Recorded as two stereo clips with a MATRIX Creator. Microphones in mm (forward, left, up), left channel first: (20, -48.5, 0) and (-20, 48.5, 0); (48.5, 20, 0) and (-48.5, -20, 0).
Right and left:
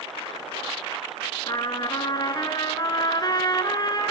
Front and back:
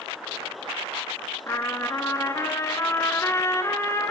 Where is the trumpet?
35° right, 1.3 m.